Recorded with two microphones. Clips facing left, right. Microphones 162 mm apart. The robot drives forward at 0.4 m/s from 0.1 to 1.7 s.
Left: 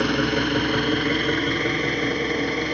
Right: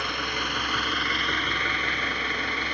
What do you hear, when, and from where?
0.0 s an engine running: 65° left (ahead or behind), 0.8 m; by 2.8 s 40° left (ahead or behind), 1.2 m